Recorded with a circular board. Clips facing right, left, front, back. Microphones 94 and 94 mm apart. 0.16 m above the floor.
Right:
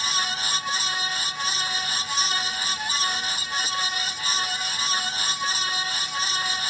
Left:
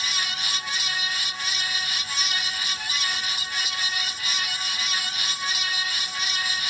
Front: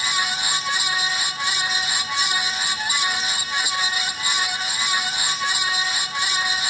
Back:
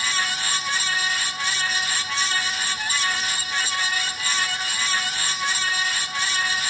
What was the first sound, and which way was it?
Only background noise.